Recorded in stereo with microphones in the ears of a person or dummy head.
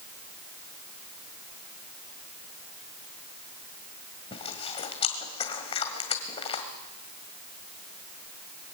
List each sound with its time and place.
4.3 s chewing: 40° left (ahead or behind), 2 m